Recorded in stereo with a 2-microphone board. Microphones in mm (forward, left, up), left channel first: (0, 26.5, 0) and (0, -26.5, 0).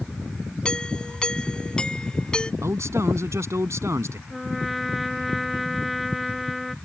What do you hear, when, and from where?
0.7 s a doorbell: 15° left (ahead or behind)
2.6 s a man speaking: 65° right (ahead or behind)
4.3 s a trumpet: centre (ahead or behind)